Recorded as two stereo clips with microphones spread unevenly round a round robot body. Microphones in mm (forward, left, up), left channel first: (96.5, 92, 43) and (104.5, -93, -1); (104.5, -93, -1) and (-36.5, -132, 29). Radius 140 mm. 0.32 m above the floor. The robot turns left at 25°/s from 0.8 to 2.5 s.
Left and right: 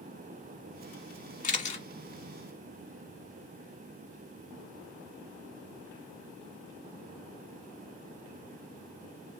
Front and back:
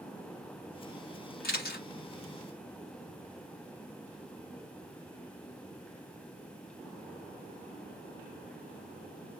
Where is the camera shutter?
40° left, 1.5 m; by 1.9 s 30° left, 1.5 m.